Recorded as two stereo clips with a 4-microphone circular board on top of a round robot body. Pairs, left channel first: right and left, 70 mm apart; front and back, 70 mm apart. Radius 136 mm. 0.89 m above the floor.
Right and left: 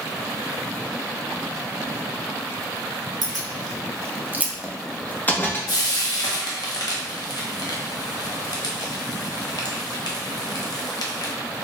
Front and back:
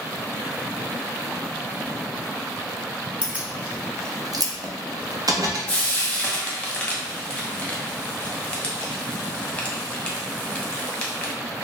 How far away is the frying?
About 0.8 m.